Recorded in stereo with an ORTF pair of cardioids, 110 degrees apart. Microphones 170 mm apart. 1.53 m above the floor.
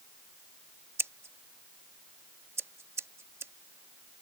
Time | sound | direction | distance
1.0 | scissors | 15° right | ?